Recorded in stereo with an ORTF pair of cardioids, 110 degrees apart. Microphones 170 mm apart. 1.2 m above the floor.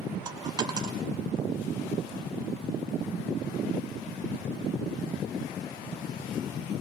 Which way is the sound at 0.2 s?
25° right.